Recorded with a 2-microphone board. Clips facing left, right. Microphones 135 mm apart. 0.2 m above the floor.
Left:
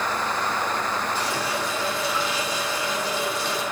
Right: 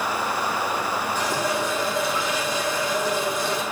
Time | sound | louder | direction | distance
1.1 | a running tap | right 3 dB | 50° right (ahead or behind) | 5.5 m